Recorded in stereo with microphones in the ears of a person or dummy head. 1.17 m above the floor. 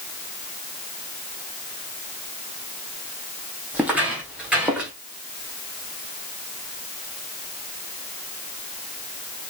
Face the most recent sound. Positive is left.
turn(degrees=-5)  # may be behind; listen again after turning